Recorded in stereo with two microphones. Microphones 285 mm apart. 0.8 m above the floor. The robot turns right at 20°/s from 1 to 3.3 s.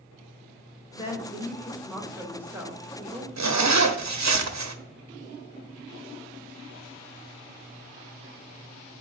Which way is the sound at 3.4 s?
70° right (ahead or behind).